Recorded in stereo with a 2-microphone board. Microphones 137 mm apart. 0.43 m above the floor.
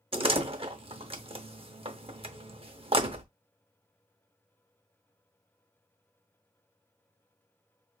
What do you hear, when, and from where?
0.1 s a door slam: 40° right (ahead or behind), 0.7 m